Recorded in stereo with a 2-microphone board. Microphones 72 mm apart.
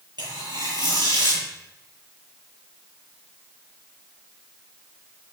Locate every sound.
0.2 s tearing paper: 80° right, 10 m